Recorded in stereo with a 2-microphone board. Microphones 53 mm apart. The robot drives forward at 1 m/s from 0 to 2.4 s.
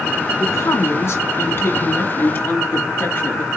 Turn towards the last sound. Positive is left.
turn(degrees=45)  # may be behind; listen again after turning